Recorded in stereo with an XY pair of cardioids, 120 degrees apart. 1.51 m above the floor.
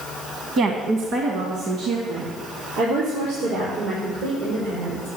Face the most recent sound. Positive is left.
turn(degrees=-80)